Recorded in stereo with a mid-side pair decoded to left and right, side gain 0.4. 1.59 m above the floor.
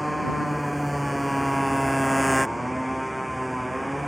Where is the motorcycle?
Straight ahead; by 4.1 s 5° right.